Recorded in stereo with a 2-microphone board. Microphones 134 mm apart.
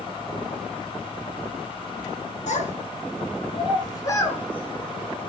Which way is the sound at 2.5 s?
65° left (ahead or behind).